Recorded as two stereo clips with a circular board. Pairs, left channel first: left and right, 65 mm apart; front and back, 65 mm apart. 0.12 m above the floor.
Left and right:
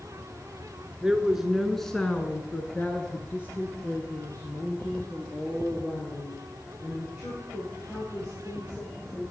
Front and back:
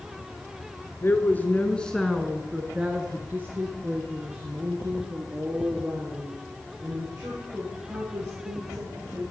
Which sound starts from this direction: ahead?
A woman speaking, at 1.0 s.